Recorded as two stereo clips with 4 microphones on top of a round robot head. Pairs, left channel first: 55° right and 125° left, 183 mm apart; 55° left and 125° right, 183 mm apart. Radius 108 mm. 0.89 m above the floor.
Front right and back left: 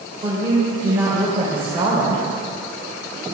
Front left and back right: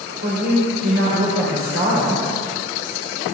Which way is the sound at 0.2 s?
165° right.